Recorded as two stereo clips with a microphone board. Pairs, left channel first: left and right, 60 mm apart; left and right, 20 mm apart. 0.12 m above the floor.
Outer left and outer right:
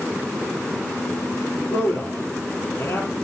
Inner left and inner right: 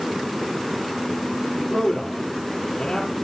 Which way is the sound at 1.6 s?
40° left (ahead or behind).